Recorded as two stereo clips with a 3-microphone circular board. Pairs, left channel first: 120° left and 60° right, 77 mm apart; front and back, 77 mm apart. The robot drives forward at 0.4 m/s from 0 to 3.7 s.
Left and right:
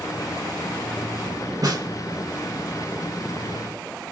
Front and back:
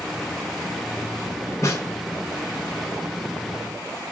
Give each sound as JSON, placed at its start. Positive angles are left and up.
{"t": 1.6, "sound": "a snare drum", "azimuth_deg": -35, "distance_m": 1.4}